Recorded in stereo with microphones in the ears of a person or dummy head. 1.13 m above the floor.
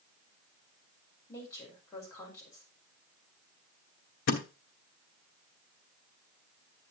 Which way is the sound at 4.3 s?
55° left (ahead or behind).